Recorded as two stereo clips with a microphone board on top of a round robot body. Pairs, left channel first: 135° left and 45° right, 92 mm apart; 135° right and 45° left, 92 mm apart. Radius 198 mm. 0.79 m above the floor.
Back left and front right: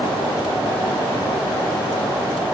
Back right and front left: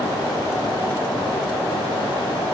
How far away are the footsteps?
No footsteps in this recording.